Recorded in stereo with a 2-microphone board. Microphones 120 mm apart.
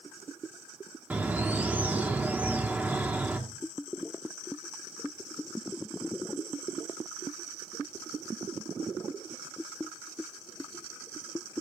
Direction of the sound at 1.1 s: 10° right (ahead or behind).